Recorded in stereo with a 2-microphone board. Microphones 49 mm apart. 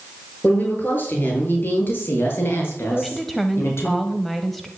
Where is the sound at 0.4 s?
40° left (ahead or behind), 6.5 m; by 3.9 s 60° left (ahead or behind), 6 m.